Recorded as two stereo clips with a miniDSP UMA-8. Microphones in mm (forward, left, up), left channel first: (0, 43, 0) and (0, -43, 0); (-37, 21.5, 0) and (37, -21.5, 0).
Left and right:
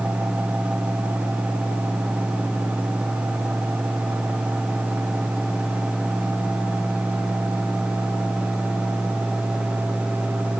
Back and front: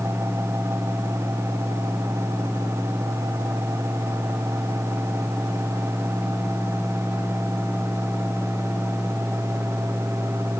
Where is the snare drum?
I don't hear a snare drum.